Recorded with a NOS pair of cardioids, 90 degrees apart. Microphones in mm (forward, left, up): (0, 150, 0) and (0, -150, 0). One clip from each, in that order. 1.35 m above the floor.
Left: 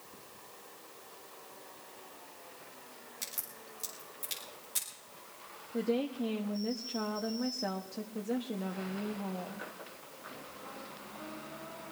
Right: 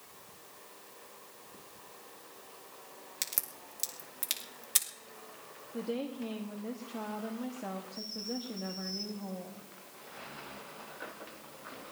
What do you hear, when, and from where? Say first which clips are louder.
3.2 s a crack: right 5 dB; 70° right, 2.5 m
5.7 s a woman speaking: left 4 dB; 20° left, 1.0 m